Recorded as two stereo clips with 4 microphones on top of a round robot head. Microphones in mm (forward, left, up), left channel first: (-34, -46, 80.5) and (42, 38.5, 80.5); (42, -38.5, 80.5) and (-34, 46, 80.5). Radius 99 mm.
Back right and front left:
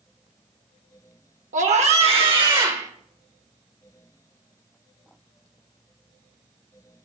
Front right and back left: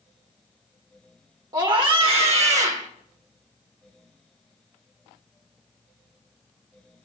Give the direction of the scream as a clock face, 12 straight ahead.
10 o'clock.